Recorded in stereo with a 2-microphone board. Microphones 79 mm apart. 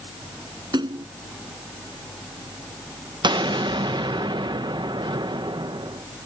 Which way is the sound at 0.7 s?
70° right (ahead or behind).